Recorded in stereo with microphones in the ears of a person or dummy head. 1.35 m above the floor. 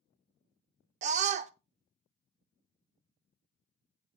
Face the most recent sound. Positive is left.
turn(degrees=-35)  # may be behind; listen again after turning